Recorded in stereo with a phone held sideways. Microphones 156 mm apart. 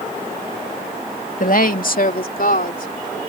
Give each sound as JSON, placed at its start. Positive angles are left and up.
{"t": 1.4, "sound": "a woman speaking", "side_deg": 60}